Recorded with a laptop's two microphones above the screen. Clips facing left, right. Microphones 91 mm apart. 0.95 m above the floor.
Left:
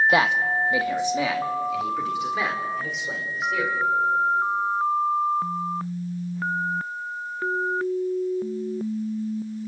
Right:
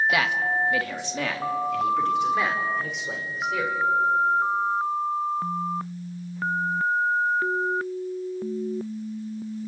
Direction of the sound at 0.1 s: 30° left (ahead or behind).